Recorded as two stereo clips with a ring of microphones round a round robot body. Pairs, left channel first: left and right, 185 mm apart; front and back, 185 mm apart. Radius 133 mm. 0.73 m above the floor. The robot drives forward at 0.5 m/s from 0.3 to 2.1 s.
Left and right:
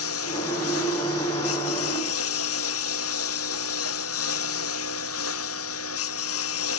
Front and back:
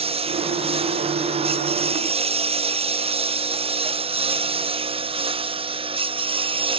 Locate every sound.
0.0 s a lawn mower: 120° left; by 6.8 s 115° left